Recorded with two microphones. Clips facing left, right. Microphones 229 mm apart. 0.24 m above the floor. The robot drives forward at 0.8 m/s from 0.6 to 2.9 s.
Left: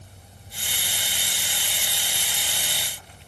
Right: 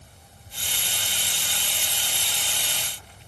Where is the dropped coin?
No dropped coin in this recording.